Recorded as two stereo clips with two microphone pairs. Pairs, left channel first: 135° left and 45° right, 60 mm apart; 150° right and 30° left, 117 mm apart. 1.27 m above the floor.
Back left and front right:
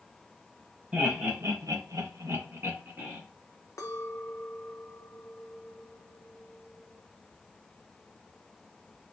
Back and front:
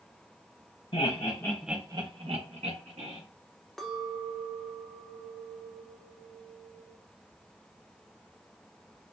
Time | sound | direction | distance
0.9 | laughter | 115° right | 1.2 m
3.8 | a clink | 120° left | 0.7 m